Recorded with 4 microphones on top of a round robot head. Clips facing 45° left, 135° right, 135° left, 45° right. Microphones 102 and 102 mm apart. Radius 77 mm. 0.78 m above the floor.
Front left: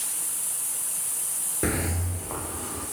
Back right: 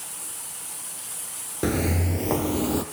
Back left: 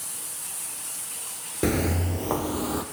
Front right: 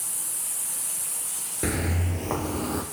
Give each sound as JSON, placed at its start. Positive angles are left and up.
{"t": 1.6, "sound": "footsteps", "azimuth_deg": 155, "distance_m": 0.8}